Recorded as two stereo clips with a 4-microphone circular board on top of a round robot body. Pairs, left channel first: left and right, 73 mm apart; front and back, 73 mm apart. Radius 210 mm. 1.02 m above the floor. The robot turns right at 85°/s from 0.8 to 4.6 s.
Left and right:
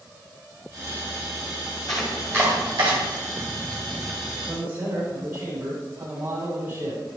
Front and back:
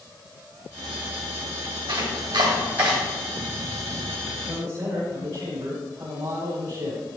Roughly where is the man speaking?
Behind.